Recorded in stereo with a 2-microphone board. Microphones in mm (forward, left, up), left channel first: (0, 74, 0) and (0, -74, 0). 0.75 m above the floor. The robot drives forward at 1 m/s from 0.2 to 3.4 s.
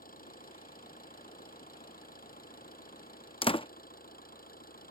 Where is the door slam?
40° left (ahead or behind).